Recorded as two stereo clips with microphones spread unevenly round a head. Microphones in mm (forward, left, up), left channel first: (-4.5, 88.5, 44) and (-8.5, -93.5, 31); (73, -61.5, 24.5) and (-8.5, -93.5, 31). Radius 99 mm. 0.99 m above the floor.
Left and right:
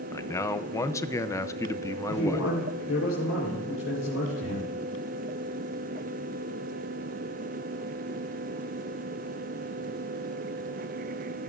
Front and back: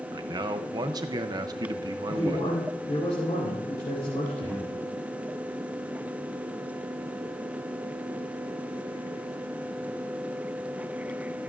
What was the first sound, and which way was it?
A man speaking, 165° left.